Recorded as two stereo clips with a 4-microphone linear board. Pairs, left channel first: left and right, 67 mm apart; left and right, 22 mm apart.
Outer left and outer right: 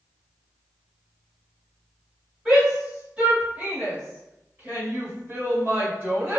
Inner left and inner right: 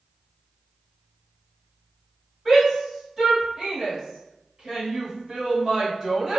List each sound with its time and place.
2.5 s a shout: 15° right (ahead or behind), 1.8 m; by 6.4 s 35° right (ahead or behind), 2 m